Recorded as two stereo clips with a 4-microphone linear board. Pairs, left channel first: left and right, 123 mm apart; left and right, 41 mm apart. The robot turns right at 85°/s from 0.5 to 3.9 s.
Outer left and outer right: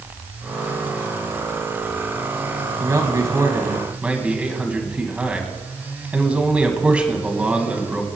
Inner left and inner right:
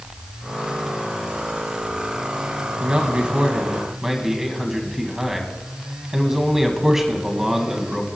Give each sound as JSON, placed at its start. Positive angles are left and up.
{"t": 2.8, "sound": "a man speaking", "side_deg": -25, "distance_m": 1.7}